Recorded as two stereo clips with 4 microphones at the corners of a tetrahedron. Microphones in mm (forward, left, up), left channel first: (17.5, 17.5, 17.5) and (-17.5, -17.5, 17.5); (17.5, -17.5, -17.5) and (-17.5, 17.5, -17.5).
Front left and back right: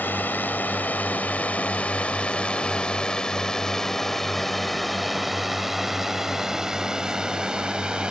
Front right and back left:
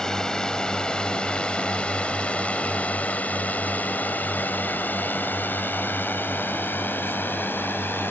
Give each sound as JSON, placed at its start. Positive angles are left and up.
{"t": 0.0, "sound": "a drone", "azimuth_deg": 25}